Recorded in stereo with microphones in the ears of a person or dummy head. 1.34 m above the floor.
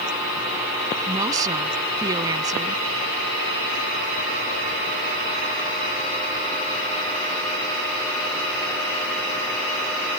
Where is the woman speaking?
20° right (ahead or behind).